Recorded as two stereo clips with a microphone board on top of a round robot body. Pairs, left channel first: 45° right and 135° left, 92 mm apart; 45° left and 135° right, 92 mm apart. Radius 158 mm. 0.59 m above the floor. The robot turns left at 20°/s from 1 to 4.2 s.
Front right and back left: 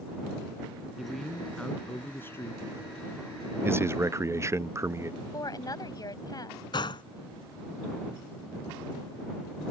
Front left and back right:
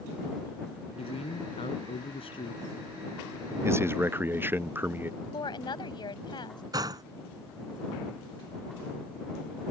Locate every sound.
1.0 s a man speaking: 50° left; by 2.6 s 15° left
3.6 s a man speaking: 175° right; by 5.1 s 175° left
5.2 s a woman speaking: 5° left
6.7 s a gunshot: 85° right